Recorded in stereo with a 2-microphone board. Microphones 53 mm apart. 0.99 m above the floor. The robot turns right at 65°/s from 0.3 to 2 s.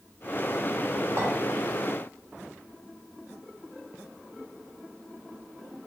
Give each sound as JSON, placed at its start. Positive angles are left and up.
{"t": 1.2, "sound": "a clink", "side_deg": -50, "distance_m": 1.4}